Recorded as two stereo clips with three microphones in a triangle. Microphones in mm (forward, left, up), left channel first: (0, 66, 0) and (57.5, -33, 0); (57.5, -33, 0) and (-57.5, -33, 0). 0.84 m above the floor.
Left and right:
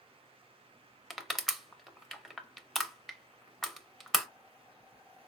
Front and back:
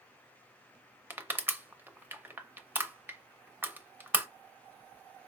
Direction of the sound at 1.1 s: 150° right.